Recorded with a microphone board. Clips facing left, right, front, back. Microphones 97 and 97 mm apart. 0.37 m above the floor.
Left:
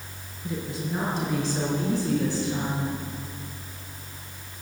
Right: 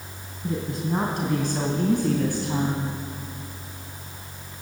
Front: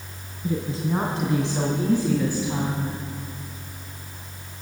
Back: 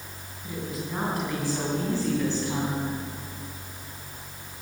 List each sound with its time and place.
0.4 s a woman speaking: 55° right, 3 m; by 3.0 s 90° right, 2.5 m